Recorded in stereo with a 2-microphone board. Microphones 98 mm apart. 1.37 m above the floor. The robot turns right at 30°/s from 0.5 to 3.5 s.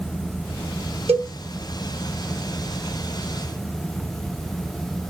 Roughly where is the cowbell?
Right.